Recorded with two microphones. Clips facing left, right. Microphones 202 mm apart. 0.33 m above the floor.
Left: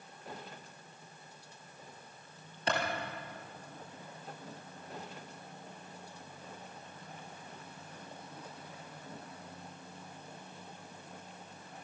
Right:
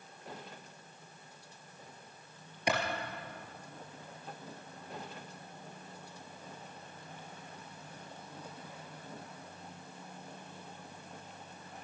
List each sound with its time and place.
2.7 s a clap: 15° right (ahead or behind), 4 m